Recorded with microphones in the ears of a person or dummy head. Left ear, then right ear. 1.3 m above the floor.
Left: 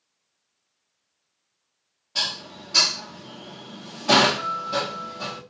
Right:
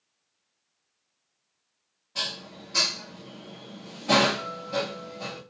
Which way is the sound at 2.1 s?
25° left (ahead or behind).